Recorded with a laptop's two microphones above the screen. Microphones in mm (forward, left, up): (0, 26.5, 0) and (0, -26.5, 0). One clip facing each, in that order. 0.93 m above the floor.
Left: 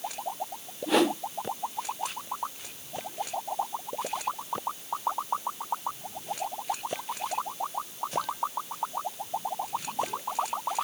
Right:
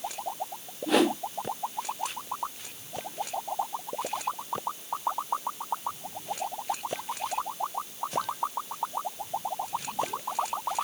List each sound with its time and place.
0.9 s a whoosh: centre (ahead or behind), 0.7 m